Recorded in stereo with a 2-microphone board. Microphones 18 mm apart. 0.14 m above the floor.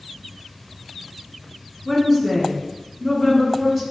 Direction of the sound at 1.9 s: 15° left (ahead or behind).